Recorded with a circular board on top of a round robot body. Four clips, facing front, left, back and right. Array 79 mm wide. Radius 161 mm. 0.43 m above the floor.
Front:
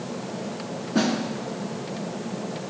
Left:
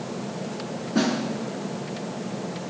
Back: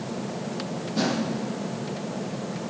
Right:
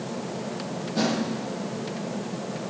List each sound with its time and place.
0.9 s a snare drum: 35° left, 3 m